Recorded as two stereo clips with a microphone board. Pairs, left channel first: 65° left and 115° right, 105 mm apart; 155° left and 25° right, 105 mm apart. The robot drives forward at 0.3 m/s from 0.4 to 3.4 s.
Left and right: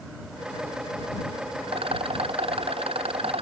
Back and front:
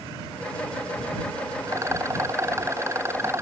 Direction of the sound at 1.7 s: 85° right.